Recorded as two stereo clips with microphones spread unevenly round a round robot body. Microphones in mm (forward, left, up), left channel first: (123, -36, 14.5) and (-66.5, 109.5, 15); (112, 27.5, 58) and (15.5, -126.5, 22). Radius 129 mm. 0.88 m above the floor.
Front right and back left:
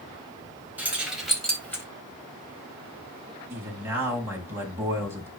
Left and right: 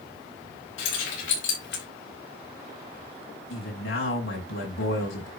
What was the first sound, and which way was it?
Keys jangling, 60° left.